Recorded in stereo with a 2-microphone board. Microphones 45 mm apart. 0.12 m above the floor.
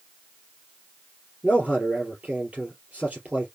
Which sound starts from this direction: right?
A man speaking, at 1.4 s.